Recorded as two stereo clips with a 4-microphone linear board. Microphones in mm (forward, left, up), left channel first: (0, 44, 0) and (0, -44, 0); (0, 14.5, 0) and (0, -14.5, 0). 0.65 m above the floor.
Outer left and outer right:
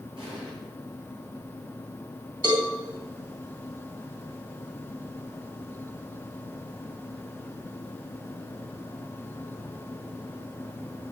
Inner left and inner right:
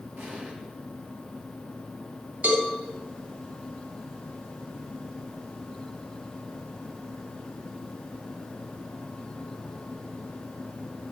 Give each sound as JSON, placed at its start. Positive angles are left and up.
{"t": 0.2, "sound": "an explosion", "side_deg": -85, "distance_m": 8.0}
{"t": 2.4, "sound": "a cowbell", "side_deg": -55, "distance_m": 3.5}